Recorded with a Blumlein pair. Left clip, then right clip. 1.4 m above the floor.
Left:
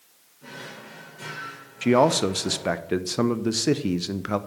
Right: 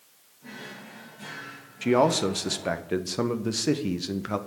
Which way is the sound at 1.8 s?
10° left.